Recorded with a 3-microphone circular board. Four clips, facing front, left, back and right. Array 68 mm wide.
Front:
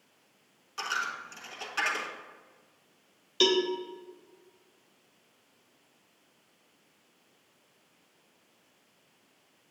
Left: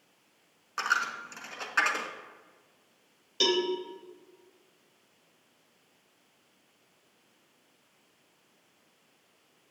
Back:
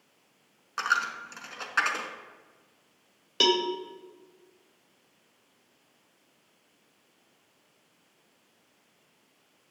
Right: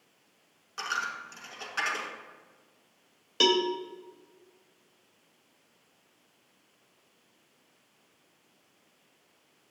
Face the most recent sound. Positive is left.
turn(degrees=-145)